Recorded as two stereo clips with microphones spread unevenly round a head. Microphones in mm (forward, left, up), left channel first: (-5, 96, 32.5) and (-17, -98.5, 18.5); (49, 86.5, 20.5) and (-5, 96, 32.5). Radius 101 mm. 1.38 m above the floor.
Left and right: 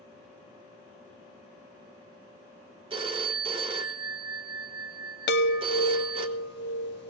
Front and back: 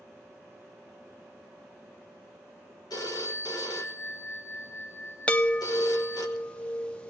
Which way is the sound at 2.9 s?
30° right.